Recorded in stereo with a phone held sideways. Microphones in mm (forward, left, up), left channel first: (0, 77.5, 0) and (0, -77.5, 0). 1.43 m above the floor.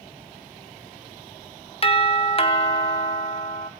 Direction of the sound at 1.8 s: 40° left (ahead or behind).